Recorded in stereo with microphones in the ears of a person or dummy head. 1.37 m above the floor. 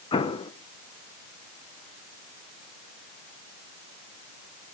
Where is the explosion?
30° left (ahead or behind), 1.0 m.